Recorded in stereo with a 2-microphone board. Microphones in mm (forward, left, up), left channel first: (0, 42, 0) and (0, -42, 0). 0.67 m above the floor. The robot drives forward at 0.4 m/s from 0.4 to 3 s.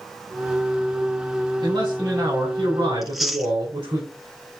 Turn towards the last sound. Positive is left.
turn(degrees=0)  # may be behind; listen again after turning